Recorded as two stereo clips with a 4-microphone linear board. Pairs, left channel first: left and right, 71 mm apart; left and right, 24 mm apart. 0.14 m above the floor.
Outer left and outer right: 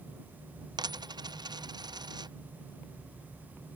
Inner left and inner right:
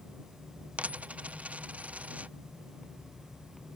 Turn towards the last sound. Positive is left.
turn(degrees=-80)